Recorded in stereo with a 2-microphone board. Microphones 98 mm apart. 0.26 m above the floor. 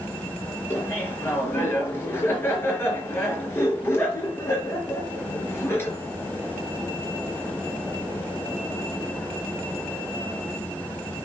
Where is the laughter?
25° left (ahead or behind), 4 m.